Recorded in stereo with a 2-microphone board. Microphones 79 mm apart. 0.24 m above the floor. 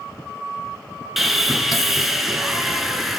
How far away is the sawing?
About 0.9 m.